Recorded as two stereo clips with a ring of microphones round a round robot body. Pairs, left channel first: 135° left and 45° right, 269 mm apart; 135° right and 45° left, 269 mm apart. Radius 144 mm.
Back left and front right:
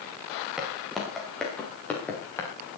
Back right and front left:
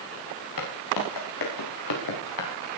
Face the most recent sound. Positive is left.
turn(degrees=-145)